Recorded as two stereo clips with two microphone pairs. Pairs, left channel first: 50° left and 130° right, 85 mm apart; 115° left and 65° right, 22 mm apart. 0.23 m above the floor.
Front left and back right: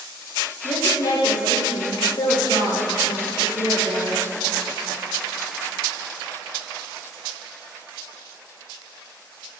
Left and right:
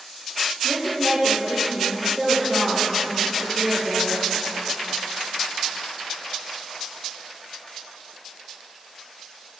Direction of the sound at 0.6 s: 35° left.